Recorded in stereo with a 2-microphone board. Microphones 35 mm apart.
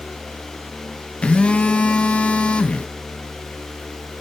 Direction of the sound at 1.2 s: 35° left (ahead or behind).